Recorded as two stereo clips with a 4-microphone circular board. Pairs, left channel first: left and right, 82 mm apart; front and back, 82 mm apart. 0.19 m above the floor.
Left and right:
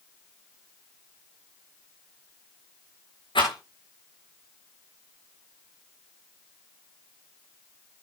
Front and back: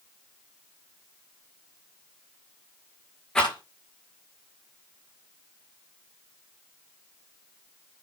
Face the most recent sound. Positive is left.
turn(degrees=80)